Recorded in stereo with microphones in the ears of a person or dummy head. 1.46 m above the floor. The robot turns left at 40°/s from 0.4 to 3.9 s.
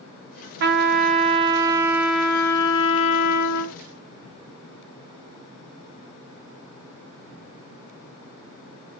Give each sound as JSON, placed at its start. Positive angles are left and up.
{"t": 0.6, "sound": "a trumpet", "azimuth_deg": -120, "distance_m": 0.6}